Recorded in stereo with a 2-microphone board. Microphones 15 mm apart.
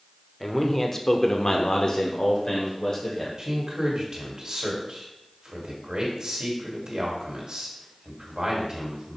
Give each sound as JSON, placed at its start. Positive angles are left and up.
{"t": 0.4, "sound": "a man speaking", "side_deg": 15, "distance_m": 1.1}
{"t": 3.4, "sound": "a man speaking", "side_deg": -55, "distance_m": 2.0}